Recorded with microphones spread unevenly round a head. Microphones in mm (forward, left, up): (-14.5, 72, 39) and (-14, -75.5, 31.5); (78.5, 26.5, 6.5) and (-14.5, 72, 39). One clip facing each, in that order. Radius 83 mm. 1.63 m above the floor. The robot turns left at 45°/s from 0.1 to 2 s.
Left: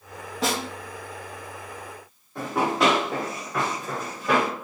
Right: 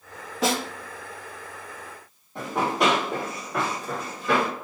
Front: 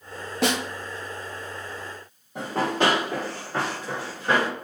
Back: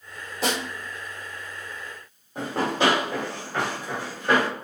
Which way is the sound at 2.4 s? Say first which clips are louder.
Left 1 dB, even; 35° right.